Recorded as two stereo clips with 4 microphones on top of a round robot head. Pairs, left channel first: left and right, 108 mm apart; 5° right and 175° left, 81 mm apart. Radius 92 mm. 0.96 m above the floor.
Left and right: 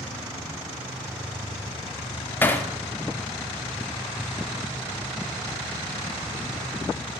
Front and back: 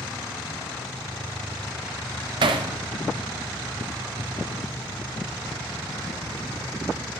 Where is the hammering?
160° left, 0.8 m.